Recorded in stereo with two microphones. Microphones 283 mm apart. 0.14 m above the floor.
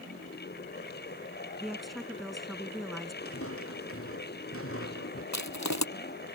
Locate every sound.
1.6 s a woman speaking: centre (ahead or behind)
3.2 s footsteps: 50° left (ahead or behind)
5.3 s crushing: 75° left (ahead or behind)